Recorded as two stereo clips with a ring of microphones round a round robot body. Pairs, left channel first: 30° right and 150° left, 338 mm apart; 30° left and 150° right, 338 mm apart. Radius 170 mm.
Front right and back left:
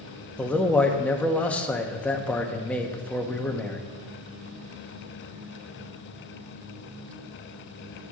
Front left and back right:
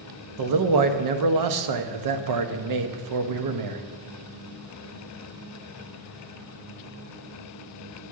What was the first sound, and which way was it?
A man speaking, 115° right.